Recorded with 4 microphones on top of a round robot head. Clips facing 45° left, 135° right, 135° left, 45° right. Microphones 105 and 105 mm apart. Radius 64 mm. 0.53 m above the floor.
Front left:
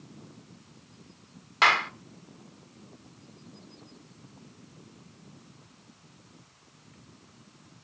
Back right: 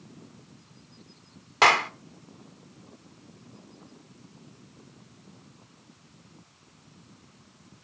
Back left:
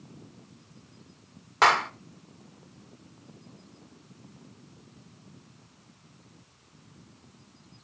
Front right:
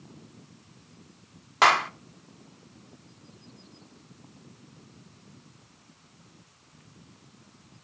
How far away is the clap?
About 1.0 m.